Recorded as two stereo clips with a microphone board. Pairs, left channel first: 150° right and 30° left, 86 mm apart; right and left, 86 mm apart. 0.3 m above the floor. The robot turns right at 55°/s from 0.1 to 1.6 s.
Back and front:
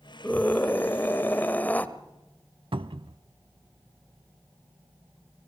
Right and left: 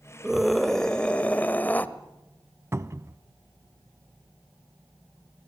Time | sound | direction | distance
0.2 | a scream | 165° left | 0.9 m
2.7 | a cupboard door | 30° left | 0.6 m